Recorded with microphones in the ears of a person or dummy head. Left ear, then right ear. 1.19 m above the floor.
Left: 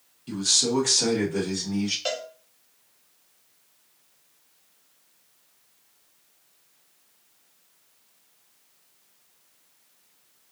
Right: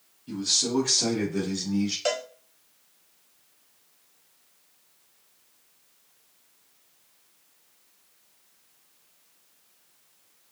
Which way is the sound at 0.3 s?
60° left (ahead or behind).